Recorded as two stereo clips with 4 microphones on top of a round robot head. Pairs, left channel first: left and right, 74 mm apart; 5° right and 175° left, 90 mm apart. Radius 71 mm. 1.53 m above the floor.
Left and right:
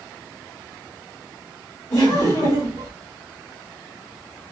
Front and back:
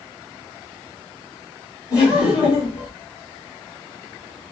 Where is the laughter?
35° left, 1.9 m.